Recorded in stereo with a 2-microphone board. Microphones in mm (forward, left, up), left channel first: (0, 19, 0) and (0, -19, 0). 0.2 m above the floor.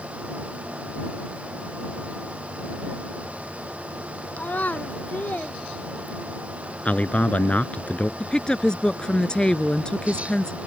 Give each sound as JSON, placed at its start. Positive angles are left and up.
{"t": 4.4, "sound": "a child speaking", "side_deg": 50}
{"t": 6.8, "sound": "a man speaking", "side_deg": 45}
{"t": 8.2, "sound": "a woman speaking", "side_deg": 25}